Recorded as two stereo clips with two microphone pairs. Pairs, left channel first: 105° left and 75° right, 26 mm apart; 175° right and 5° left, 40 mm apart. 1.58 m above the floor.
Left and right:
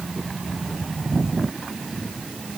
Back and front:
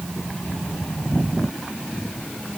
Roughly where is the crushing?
No crushing in this recording.